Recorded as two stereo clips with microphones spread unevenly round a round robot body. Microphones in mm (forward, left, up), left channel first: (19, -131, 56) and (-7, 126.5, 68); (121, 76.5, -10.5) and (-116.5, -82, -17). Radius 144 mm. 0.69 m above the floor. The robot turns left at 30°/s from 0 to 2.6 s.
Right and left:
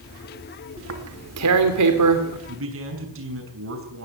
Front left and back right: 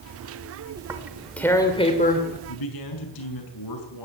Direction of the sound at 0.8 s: 135° left.